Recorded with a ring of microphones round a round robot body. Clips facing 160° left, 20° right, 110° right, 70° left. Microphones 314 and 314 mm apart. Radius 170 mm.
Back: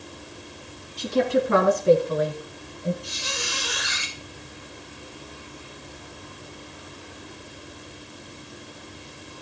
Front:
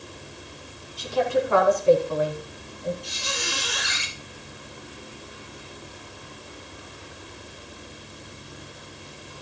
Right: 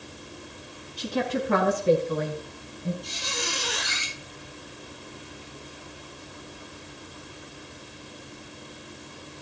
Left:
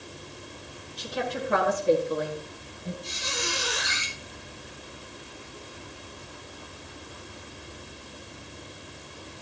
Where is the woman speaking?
140° right, 5 m; by 2.9 s 120° right, 5 m.